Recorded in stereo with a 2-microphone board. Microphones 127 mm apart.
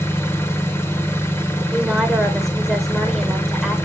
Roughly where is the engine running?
Centre.